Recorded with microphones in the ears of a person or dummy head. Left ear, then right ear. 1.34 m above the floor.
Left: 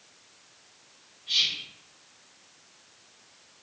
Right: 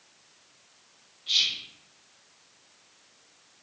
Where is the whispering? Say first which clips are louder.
Right 1 dB; 45° right (ahead or behind), 0.6 m.